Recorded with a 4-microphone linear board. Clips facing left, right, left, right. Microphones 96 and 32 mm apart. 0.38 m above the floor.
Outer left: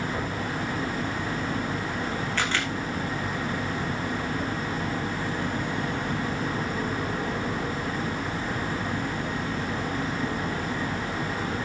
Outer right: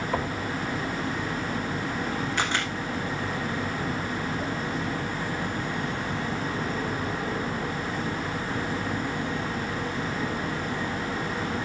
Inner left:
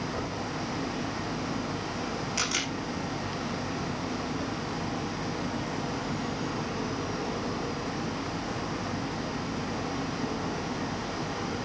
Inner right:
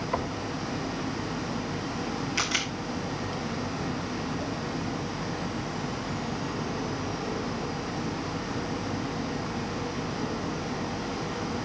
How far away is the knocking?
About 2.5 m.